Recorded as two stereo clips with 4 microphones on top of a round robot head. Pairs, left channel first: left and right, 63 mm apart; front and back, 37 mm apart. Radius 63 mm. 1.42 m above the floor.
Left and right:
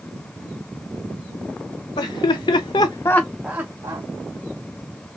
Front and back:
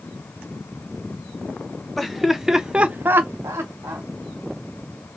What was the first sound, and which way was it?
Laughter, 85° left.